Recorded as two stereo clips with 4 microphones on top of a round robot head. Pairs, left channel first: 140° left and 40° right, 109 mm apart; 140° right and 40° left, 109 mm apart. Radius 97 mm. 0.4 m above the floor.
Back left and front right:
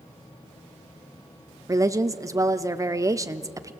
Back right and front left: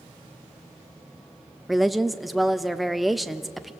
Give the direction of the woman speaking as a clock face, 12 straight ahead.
2 o'clock.